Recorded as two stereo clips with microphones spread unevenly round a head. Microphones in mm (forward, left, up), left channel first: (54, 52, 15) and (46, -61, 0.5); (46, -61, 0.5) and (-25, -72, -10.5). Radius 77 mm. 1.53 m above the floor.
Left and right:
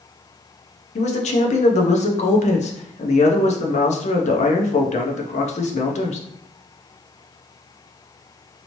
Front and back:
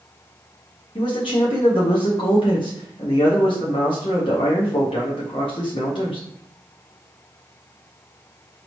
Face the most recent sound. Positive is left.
turn(degrees=65)